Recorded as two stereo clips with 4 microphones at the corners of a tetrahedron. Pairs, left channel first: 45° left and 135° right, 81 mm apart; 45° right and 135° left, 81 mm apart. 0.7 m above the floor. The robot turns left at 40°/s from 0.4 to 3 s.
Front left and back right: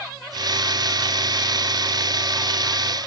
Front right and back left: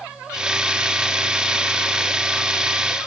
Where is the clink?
I don't hear a clink.